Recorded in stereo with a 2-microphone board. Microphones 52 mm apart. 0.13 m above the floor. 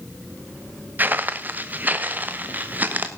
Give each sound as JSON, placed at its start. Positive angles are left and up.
{"t": 1.0, "sound": "footsteps", "side_deg": -35, "distance_m": 1.2}